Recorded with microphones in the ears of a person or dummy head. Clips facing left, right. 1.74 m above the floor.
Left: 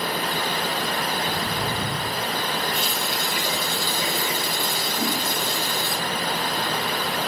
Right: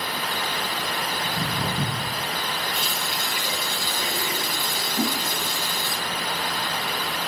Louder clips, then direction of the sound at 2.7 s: Left 3 dB; 40° left (ahead or behind).